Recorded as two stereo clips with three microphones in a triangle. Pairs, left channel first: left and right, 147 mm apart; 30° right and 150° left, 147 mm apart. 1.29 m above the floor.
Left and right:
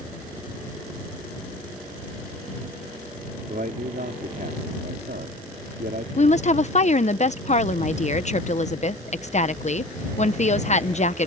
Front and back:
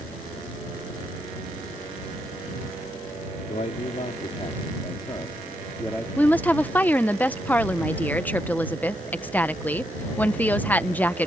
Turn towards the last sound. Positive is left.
turn(degrees=50)